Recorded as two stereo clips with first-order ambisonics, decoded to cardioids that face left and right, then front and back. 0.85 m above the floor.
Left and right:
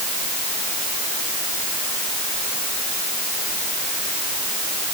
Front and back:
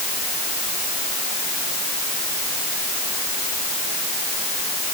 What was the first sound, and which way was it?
Only background noise.